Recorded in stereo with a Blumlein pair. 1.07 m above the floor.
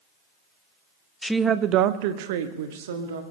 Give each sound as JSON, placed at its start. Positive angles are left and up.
{"t": 1.2, "sound": "a woman speaking", "azimuth_deg": 10, "distance_m": 0.5}